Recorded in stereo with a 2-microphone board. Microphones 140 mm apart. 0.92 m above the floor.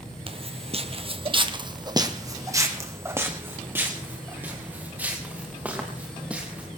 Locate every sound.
0.3 s footsteps: 40° right (ahead or behind), 1.2 m; by 6.7 s 10° right (ahead or behind), 6 m